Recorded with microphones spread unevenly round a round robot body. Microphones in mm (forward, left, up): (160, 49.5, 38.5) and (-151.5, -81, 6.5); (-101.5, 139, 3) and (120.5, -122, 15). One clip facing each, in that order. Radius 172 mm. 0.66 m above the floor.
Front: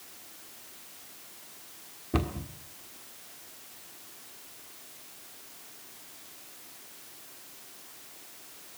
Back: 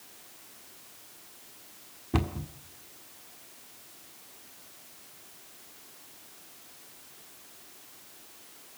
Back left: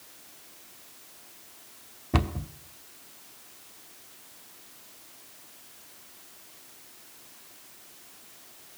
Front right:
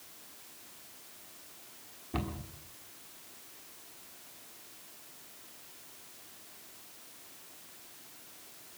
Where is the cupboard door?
130° left, 1.5 m.